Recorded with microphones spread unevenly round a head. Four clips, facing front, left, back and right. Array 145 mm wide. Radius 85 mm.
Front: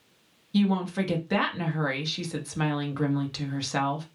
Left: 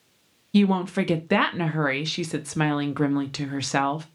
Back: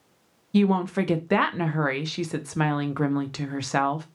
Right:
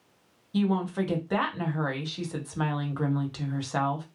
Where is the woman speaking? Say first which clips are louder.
Left 5 dB, back 3 dB; 95° left, 0.6 m.